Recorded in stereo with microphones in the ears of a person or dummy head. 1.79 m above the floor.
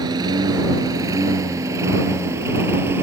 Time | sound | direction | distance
0.0 | a lawn mower | 25° right (ahead or behind) | ?